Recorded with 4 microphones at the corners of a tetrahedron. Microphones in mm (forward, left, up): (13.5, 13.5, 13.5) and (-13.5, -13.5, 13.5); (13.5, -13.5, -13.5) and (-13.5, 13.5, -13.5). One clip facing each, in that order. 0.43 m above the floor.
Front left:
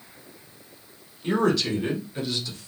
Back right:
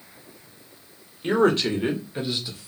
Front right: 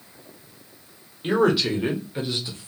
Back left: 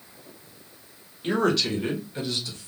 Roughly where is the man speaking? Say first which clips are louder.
Back right 3 dB, front right 3 dB; behind right.